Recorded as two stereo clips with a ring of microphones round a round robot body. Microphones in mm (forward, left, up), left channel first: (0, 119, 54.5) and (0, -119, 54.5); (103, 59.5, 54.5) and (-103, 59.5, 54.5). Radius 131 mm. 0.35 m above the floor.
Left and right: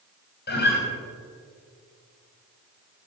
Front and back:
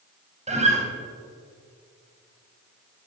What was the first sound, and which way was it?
A guitar, 130° left.